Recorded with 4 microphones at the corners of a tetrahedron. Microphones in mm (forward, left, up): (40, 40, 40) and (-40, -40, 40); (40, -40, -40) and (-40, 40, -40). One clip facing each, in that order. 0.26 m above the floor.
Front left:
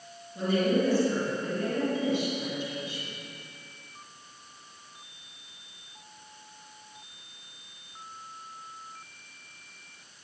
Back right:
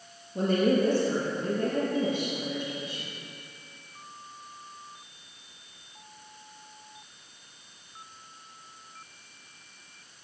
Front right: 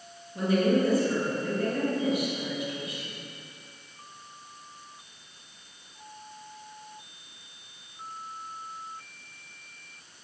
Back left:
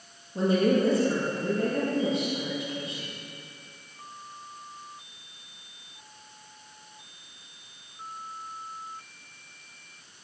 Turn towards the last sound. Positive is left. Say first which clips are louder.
# back right 2 dB, back left 1 dB
turn(degrees=-165)